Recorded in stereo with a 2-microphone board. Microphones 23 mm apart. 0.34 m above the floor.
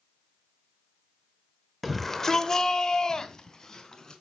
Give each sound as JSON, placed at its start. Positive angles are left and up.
{"t": 1.8, "sound": "a shout", "side_deg": 0, "distance_m": 0.9}